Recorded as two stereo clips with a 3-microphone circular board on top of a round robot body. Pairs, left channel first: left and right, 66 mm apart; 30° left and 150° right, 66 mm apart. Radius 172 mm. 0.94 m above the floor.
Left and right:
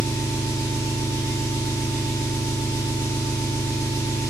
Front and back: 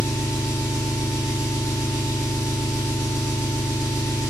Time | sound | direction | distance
0.0 | an engine running | 90° right | 1.2 m